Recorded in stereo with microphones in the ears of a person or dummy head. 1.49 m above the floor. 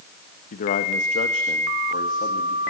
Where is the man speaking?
50° left (ahead or behind), 1.4 m; by 2.7 s 40° left (ahead or behind), 3 m.